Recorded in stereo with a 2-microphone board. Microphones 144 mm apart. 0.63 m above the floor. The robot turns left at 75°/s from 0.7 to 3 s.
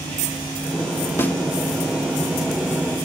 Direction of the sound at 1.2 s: 15° left (ahead or behind).